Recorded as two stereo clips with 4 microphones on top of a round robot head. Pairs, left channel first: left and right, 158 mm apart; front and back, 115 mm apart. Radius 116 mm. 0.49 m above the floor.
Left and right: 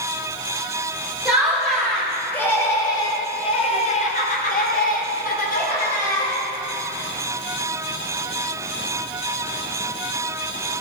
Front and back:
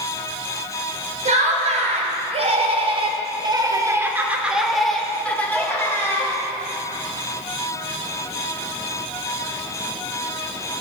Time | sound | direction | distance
1.2 | laughter | 175° right | 2.5 m